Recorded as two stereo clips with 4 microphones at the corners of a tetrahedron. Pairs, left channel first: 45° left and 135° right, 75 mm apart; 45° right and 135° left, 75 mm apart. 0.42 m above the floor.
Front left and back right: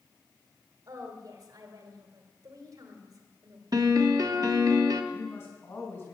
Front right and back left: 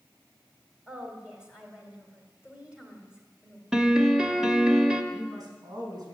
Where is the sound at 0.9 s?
150° right, 2 m.